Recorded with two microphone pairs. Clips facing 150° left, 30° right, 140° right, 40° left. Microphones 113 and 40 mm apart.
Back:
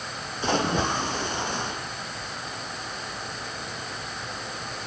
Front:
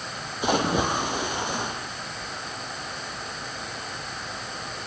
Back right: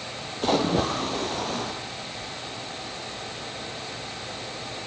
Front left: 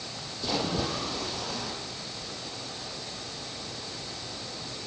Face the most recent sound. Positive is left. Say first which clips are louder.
# front 1 dB, back right 7 dB
turn(degrees=-105)